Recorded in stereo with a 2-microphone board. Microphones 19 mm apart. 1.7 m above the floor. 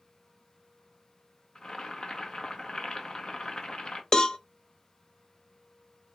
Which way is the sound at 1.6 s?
45° left (ahead or behind).